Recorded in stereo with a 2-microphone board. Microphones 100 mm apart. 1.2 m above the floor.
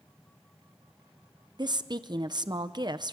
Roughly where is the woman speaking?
Right.